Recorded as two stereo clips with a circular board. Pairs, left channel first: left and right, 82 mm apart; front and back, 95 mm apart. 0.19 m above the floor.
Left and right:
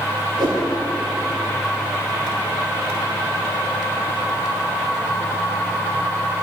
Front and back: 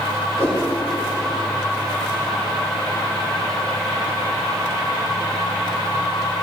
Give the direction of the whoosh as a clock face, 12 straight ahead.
2 o'clock.